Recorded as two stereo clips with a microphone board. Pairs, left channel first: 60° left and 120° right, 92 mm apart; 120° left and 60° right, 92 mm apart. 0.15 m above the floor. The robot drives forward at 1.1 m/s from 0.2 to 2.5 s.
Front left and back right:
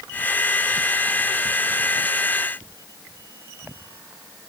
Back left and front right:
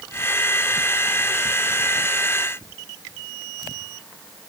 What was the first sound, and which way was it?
Only background noise.